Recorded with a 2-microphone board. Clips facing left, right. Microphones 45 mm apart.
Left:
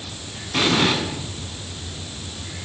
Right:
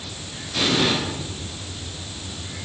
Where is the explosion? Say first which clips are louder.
Left 2 dB; 50° left (ahead or behind), 9 m.